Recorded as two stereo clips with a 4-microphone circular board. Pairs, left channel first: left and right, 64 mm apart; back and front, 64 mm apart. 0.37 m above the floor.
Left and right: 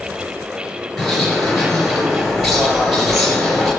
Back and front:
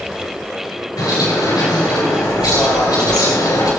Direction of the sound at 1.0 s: Straight behind.